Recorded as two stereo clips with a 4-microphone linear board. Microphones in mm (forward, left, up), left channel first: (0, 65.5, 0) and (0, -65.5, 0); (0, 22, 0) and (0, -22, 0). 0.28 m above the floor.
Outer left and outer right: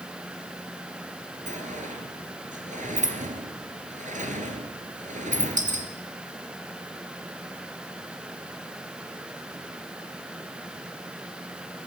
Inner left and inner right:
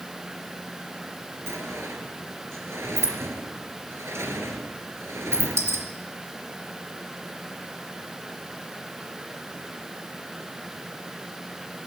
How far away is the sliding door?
About 3 m.